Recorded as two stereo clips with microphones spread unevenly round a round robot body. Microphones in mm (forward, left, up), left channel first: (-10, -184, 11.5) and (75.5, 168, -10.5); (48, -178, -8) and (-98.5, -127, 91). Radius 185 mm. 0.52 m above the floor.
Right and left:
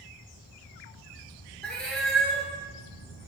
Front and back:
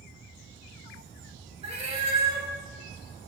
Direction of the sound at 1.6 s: 170° left.